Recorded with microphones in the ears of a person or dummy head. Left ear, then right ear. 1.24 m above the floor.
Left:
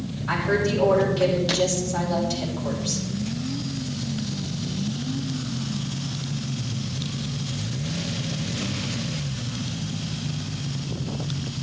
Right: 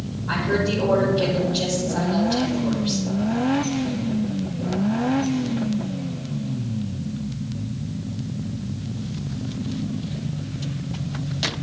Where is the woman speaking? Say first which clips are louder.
Even; 60° left (ahead or behind), 4.5 m.